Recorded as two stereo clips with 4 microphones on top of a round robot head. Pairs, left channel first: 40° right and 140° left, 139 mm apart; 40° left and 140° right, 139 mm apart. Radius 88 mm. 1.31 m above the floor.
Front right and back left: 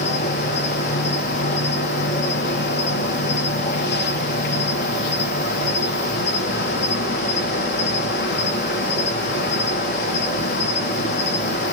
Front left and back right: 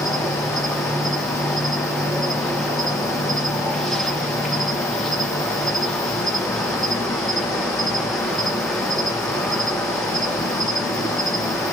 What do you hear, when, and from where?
0.0 s an insect: 50° right, 0.7 m